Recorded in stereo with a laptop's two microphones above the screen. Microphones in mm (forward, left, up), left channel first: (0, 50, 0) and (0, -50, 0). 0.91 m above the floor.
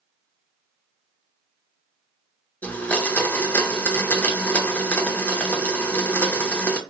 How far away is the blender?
About 0.7 m.